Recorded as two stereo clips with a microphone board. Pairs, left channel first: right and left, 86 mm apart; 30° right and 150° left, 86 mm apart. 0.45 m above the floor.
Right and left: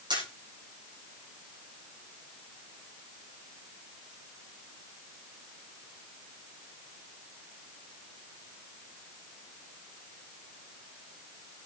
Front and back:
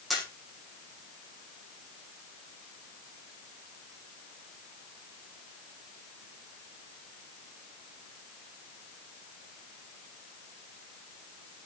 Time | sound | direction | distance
0.1 | a camera shutter | 60° left | 5.5 m